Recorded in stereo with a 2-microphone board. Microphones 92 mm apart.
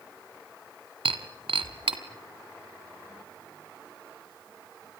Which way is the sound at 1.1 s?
80° right.